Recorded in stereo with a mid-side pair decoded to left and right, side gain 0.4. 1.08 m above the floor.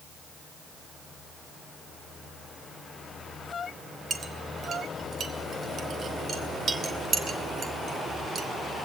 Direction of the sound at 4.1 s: 50° right.